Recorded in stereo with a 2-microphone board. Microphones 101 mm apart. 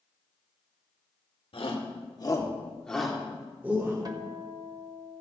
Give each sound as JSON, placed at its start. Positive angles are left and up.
{"t": 1.5, "sound": "a shout", "side_deg": 65, "distance_m": 1.6}
{"t": 4.0, "sound": "a guitar", "side_deg": -40, "distance_m": 0.8}